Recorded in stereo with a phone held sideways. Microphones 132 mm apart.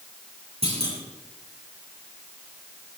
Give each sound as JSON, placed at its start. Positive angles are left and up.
{"t": 0.6, "sound": "a clunk", "side_deg": -50, "distance_m": 6.0}